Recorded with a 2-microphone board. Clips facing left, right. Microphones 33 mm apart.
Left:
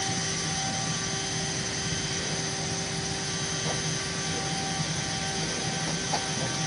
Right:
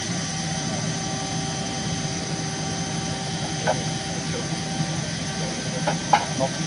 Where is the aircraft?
75° right (ahead or behind).